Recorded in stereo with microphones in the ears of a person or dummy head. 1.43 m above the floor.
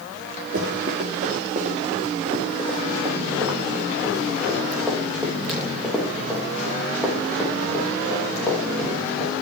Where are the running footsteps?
50° right (ahead or behind), 4.5 m; by 9.4 s 15° left (ahead or behind), 9 m.